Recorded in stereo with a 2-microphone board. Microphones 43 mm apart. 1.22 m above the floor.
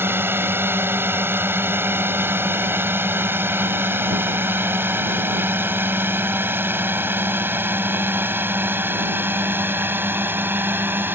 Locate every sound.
0.0 s a drone: 60° right (ahead or behind); by 11.2 s 50° right (ahead or behind)